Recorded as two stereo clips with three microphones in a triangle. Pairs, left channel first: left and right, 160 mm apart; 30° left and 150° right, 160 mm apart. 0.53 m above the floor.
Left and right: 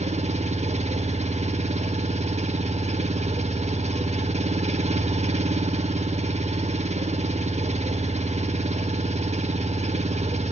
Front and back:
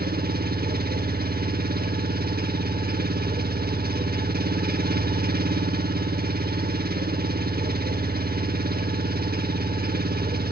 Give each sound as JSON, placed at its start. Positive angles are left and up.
{"t": 0.0, "sound": "an engine running", "azimuth_deg": -135, "distance_m": 0.7}